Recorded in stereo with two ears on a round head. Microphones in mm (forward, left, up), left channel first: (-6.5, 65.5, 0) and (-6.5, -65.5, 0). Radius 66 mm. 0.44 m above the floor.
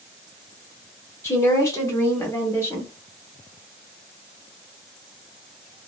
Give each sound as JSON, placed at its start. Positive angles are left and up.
{"t": 1.2, "sound": "a woman speaking", "side_deg": 15, "distance_m": 1.0}